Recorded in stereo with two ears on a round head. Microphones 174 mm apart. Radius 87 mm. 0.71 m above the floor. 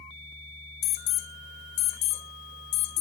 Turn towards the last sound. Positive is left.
turn(degrees=60)  # may be behind; listen again after turning